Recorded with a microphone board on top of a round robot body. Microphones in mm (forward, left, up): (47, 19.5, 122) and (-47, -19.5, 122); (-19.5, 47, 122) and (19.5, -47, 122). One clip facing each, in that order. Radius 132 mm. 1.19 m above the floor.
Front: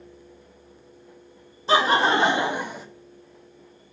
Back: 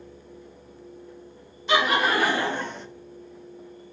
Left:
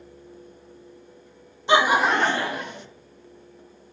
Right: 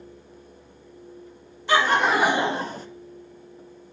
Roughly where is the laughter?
Ahead left.